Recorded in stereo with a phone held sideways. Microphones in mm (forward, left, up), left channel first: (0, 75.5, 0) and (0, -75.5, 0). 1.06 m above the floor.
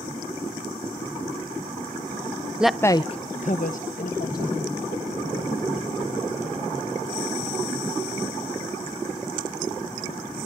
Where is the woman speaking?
5° right (ahead or behind), 0.5 m; by 4.7 s 65° left (ahead or behind), 2.0 m.